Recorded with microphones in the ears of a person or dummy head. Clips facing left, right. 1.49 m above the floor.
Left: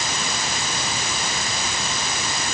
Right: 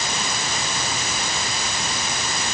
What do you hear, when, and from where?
Only background noise.